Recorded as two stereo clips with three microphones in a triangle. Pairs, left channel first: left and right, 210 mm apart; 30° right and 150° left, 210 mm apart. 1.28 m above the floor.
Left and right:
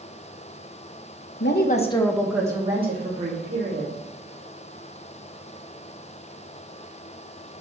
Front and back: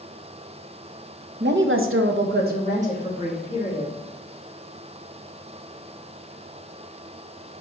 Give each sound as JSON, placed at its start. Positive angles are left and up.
{"t": 1.4, "sound": "a woman speaking", "azimuth_deg": 115, "distance_m": 0.9}